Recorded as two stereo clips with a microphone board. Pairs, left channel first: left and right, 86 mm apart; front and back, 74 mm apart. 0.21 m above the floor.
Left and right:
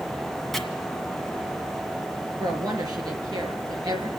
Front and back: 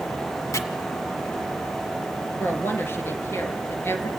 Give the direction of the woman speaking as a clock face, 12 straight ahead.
2 o'clock.